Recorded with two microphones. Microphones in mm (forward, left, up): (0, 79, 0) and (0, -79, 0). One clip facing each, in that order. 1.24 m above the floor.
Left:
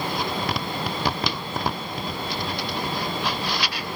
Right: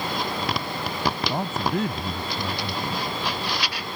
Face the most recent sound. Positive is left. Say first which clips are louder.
# right 3 dB
turn(degrees=-80)